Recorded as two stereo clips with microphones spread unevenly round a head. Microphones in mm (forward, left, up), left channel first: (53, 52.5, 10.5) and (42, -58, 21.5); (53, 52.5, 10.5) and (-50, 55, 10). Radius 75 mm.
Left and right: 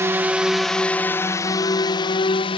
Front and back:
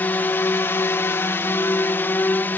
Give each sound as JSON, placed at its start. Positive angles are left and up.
{"t": 0.0, "sound": "a drone", "azimuth_deg": -55}